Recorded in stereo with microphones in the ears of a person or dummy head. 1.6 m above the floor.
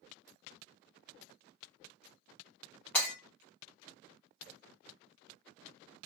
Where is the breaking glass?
10° left (ahead or behind), 1.3 m.